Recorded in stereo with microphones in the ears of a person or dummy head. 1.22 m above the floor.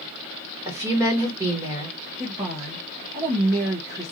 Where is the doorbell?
I don't hear a doorbell.